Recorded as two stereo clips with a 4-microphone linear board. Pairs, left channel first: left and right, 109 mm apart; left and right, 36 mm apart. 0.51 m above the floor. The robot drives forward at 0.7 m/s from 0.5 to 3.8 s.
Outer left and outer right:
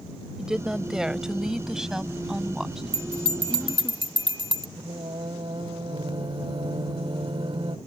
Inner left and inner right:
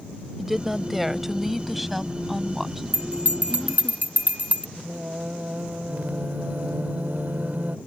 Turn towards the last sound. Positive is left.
turn(degrees=-55)  # may be behind; listen again after turning